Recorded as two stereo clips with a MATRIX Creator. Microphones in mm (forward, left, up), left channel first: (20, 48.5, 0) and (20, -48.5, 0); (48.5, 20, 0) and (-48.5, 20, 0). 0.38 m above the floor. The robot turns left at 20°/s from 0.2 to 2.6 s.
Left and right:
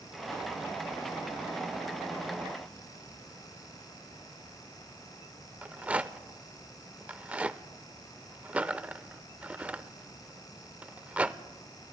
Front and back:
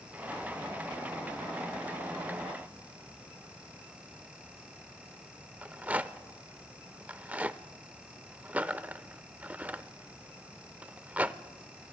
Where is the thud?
No thud in this recording.